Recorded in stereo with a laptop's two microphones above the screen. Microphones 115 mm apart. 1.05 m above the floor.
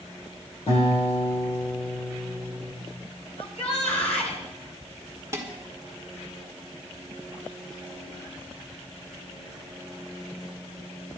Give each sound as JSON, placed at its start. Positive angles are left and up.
{"t": 0.7, "sound": "a guitar", "side_deg": 60, "distance_m": 8.0}
{"t": 3.4, "sound": "a shout", "side_deg": 75, "distance_m": 9.5}
{"t": 5.3, "sound": "dishes clattering", "side_deg": -25, "distance_m": 1.5}